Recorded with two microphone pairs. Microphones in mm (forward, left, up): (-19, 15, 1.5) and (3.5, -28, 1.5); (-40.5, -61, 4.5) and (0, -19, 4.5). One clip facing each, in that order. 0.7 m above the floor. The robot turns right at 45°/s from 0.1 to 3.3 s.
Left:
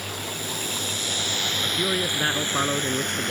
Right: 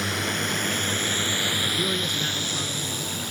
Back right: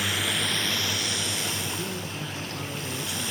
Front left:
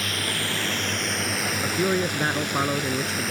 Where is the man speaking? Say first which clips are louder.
Left 1 dB, front left 10 dB; 35° left; by 3.3 s 110° left.